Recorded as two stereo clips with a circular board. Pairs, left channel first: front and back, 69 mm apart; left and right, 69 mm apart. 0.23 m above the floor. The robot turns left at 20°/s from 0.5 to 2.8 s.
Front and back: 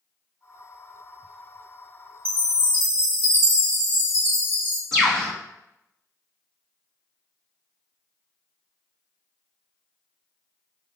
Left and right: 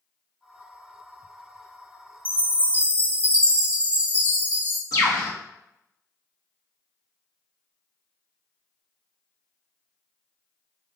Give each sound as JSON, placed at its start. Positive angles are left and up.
{"t": 2.2, "sound": "a chime", "azimuth_deg": 150, "distance_m": 2.0}
{"t": 4.9, "sound": "a bird", "azimuth_deg": 85, "distance_m": 2.5}